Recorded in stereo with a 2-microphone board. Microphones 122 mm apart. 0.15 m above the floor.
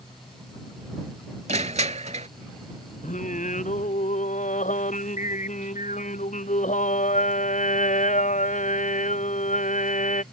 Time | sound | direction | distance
1.5 | crushing | 65° right (ahead or behind) | ?
3.0 | singing | 85° left | ?